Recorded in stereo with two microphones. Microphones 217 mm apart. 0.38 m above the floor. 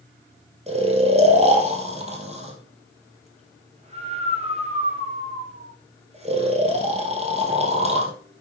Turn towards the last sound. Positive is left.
turn(degrees=-30)  # may be behind; listen again after turning